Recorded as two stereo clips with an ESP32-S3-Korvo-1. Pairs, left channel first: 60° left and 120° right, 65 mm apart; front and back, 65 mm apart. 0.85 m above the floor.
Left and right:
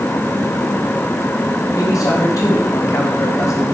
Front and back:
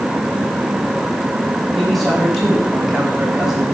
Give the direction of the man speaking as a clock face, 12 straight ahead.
9 o'clock.